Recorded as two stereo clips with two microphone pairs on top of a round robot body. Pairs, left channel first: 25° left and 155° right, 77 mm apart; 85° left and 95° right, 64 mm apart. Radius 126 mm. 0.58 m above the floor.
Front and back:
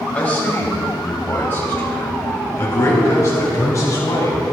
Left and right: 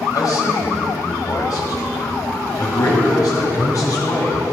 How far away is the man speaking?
About 4.5 m.